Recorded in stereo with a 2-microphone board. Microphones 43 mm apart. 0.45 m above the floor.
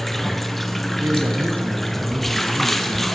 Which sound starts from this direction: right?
A man speaking, at 1.0 s.